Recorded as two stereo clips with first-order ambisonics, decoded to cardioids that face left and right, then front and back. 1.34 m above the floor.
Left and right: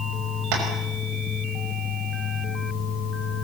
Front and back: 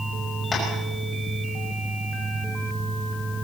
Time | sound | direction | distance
0.5 | tapping | 75° right | 6 m